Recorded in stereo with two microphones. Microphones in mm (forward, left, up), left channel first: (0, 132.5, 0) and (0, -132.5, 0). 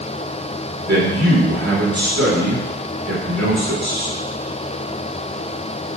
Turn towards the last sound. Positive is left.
turn(degrees=-80)